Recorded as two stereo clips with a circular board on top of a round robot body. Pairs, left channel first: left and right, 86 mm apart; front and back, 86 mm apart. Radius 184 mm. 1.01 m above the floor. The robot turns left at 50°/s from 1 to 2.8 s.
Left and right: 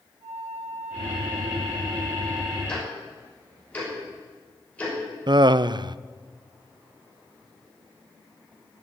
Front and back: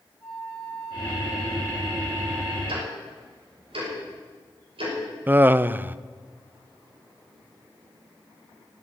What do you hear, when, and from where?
0.2 s a flute: 80° right, 6 m; by 2.6 s 160° right, 6 m
2.7 s ticking: 170° left, 6 m; by 5.0 s 165° left, 6 m
5.3 s laughter: 115° right, 0.6 m